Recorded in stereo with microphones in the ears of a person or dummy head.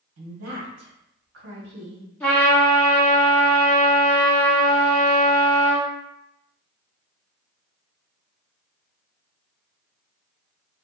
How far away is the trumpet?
About 1.5 m.